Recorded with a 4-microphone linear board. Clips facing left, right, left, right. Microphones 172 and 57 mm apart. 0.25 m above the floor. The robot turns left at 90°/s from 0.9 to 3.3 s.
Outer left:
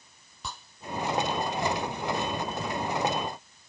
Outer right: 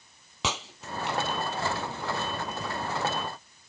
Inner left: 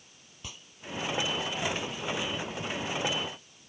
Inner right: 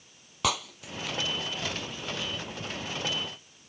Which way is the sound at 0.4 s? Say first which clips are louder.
Outer right 6 dB, inner right 14 dB; 80° right.